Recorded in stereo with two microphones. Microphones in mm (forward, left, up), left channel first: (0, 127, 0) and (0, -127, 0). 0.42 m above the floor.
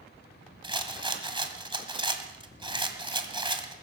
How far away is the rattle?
About 1.6 m.